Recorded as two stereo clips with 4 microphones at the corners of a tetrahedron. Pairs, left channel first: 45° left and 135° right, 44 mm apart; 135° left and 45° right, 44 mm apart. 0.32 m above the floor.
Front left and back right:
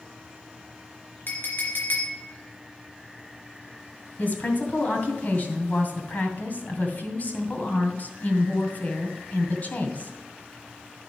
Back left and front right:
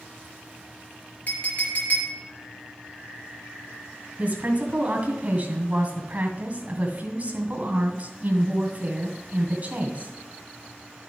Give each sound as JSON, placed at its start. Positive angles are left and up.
{"t": 1.3, "sound": "a clink", "azimuth_deg": 85, "distance_m": 3.0}
{"t": 4.2, "sound": "a woman speaking", "azimuth_deg": 5, "distance_m": 2.5}